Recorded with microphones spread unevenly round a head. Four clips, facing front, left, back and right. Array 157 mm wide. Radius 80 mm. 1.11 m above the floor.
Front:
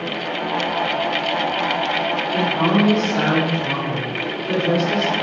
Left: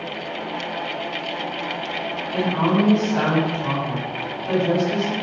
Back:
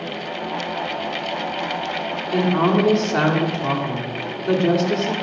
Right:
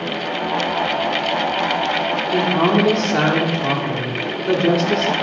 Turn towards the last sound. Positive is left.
turn(degrees=-125)